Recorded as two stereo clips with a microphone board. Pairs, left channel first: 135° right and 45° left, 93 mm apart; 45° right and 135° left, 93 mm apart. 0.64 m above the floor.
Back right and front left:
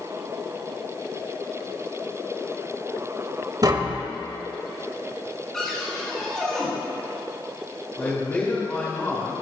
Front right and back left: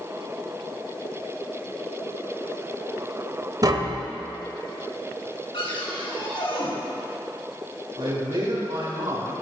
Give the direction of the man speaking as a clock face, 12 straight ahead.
7 o'clock.